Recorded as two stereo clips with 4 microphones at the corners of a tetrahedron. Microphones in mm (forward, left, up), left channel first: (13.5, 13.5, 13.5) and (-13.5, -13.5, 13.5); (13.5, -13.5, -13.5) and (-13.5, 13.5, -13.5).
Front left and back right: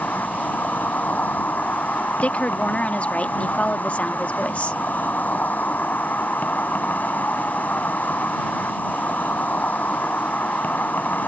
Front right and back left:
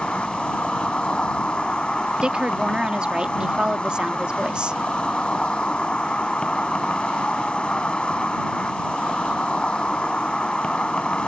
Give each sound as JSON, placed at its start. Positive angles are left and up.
{"t": 0.0, "sound": "an insect", "azimuth_deg": 15}
{"t": 2.2, "sound": "a woman speaking", "azimuth_deg": 80}